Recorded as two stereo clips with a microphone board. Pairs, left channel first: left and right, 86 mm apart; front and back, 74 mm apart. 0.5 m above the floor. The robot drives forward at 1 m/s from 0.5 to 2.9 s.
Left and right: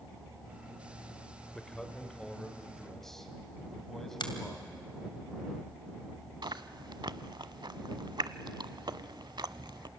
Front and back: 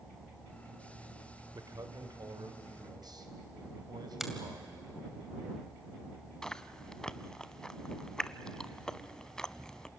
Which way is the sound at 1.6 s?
170° left.